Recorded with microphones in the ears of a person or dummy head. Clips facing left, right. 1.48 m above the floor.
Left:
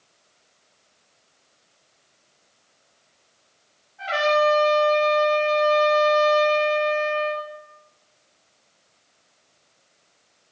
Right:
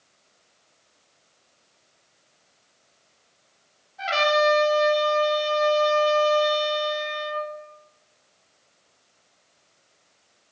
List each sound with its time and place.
4.0 s a trumpet: 60° right (ahead or behind), 0.8 m